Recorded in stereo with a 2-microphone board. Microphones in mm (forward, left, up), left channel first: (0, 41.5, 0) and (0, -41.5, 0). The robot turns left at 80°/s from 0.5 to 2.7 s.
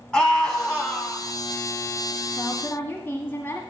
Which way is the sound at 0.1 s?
10° left (ahead or behind).